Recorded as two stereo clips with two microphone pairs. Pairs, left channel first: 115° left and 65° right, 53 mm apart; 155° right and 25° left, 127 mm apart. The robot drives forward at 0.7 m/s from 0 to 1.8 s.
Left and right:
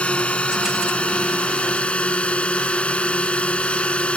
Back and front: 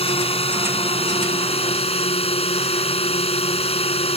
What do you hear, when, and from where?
0.0 s a drone: 175° left